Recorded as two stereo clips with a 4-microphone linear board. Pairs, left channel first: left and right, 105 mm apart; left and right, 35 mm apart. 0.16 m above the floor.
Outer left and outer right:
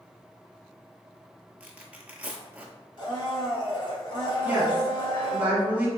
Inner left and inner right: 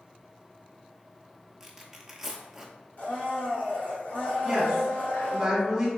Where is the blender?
45° left (ahead or behind), 1.8 m.